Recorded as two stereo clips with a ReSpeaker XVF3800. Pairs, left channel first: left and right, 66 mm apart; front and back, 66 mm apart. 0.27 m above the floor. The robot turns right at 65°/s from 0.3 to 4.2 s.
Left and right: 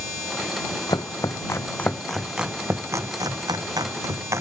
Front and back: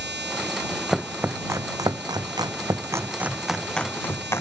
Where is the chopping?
95° left; by 4.4 s 50° right.